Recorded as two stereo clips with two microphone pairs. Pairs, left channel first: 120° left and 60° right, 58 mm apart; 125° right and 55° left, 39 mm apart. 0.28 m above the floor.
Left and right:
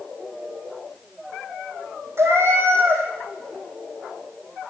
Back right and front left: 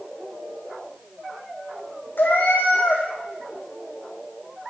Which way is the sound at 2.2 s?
100° right.